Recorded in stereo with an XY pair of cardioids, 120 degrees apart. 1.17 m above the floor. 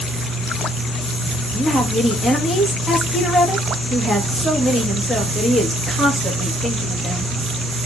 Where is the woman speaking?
5° right, 1.0 m.